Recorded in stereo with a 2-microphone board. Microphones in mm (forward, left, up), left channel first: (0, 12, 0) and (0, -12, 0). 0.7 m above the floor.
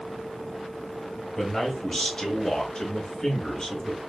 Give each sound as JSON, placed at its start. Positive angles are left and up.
{"t": 1.4, "sound": "a man speaking", "side_deg": 15, "distance_m": 1.0}